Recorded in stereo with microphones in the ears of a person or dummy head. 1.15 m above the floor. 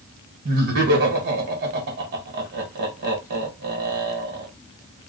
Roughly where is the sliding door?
No sliding door in this recording.